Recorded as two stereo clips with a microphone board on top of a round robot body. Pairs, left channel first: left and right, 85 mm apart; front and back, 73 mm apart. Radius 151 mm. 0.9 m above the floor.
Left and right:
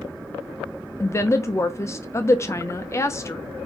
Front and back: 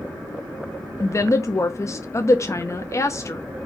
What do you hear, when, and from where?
1.0 s a woman speaking: 40° left, 0.7 m